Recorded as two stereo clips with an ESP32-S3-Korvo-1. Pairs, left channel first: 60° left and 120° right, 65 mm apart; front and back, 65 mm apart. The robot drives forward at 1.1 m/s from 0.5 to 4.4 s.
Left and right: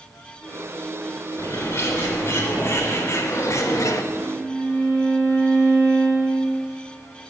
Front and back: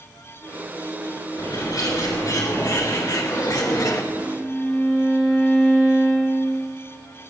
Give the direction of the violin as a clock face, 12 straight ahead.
2 o'clock.